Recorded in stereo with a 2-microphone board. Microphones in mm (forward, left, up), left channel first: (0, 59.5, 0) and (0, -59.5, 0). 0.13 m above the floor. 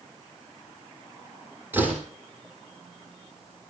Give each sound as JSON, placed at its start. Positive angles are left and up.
{"t": 1.7, "sound": "a door slam", "side_deg": -15, "distance_m": 3.0}